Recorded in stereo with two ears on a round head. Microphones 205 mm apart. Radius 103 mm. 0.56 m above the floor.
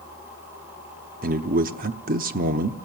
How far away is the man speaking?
About 0.8 m.